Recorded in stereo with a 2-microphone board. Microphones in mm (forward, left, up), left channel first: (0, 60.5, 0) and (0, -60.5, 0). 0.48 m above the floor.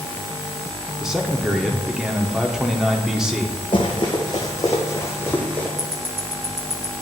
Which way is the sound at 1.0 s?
5° right (ahead or behind).